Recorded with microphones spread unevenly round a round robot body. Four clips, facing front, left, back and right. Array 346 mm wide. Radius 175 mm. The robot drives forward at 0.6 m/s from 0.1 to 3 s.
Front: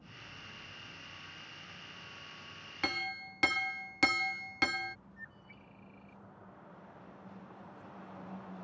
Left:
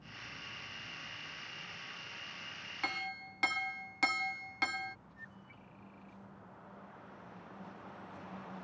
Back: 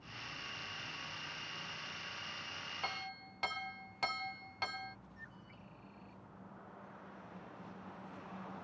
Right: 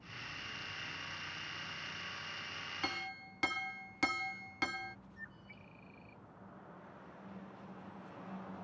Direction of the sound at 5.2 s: 55° right.